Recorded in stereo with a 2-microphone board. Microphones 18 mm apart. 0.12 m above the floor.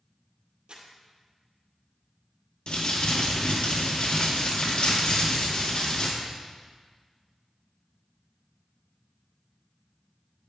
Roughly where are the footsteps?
I don't hear footsteps.